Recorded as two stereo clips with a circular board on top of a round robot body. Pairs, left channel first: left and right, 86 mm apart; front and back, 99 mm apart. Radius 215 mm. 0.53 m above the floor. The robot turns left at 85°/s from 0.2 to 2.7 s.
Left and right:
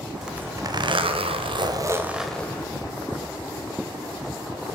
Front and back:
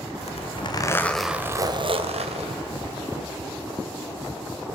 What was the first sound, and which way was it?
A zipper, 5° right.